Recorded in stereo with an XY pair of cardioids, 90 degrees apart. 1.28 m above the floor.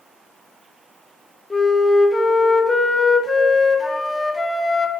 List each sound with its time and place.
1.5 s a flute: 20° left, 0.7 m